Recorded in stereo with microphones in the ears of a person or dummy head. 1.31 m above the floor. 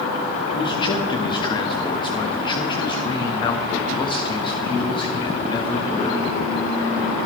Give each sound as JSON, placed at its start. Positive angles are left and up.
{"t": 0.5, "sound": "a man speaking", "side_deg": 30, "distance_m": 1.3}